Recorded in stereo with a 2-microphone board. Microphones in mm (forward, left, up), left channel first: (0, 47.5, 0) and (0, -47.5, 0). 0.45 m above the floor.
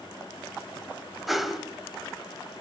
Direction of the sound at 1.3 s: Centre (ahead or behind).